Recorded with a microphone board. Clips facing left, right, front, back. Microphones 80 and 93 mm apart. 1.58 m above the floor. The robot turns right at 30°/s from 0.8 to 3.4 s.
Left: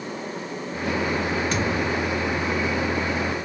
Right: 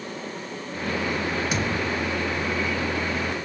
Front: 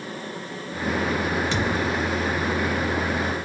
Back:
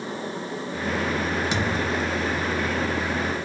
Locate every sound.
1.5 s a thud: 155° right, 0.9 m; by 2.0 s 140° right, 0.9 m